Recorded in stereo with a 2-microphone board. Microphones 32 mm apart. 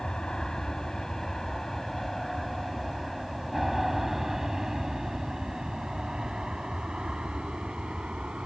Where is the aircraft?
20° left (ahead or behind); by 8.5 s 30° right (ahead or behind).